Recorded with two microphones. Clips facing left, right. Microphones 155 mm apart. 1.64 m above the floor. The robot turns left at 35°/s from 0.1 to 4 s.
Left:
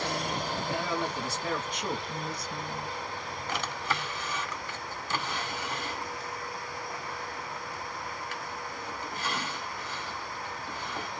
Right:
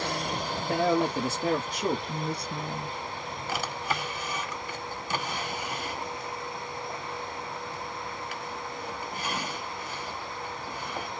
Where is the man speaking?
105° right, 1.3 m; by 2.0 s 150° right, 1.3 m.